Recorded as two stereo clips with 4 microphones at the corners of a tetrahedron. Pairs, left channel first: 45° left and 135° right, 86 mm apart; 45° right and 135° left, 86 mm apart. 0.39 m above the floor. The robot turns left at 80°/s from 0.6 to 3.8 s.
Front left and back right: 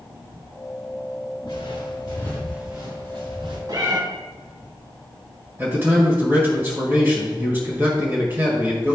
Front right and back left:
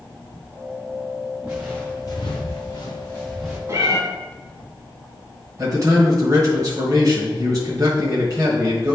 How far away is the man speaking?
About 1.6 m.